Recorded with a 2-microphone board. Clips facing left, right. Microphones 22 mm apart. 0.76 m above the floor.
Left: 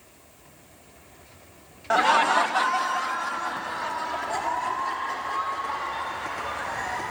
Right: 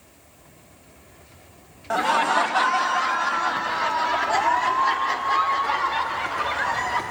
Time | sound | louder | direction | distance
1.9 | laughter | left 1 dB | 20° left (ahead or behind) | 0.5 m